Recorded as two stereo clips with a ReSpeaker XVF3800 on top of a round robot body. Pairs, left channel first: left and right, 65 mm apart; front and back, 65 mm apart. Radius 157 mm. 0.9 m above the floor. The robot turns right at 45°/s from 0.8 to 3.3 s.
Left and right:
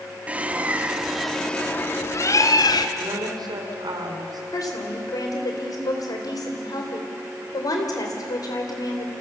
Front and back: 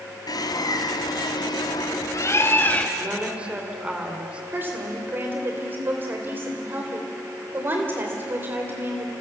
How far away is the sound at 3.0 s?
About 3.5 m.